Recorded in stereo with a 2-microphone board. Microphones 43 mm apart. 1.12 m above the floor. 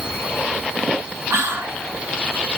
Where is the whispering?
75° right (ahead or behind), 1.3 m.